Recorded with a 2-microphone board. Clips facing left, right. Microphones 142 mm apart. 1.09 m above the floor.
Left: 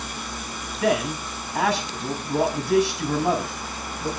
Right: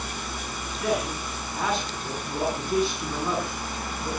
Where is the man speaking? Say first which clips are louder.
Left 5 dB; 85° left, 7 m.